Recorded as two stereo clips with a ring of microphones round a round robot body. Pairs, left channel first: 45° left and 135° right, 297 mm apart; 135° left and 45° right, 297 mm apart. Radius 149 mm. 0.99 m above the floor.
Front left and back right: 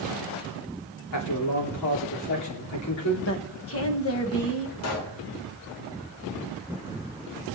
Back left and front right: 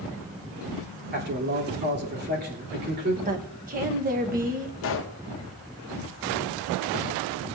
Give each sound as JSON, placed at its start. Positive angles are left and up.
{"t": 1.1, "sound": "a man speaking", "azimuth_deg": 15, "distance_m": 3.0}
{"t": 3.2, "sound": "a woman speaking", "azimuth_deg": 10, "distance_m": 1.1}
{"t": 4.8, "sound": "a pop", "azimuth_deg": 85, "distance_m": 0.9}